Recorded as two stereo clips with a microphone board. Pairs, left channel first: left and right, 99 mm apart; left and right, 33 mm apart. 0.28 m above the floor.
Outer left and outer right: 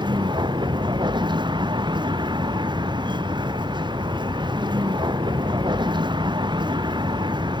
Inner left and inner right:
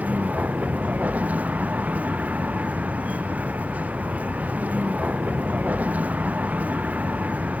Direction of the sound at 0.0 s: 50° right (ahead or behind).